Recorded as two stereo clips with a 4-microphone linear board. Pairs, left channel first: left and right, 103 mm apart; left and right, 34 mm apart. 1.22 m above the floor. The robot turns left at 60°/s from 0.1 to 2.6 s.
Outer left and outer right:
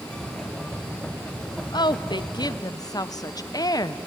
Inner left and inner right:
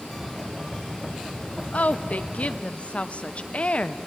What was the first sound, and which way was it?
A woman speaking, 110° left.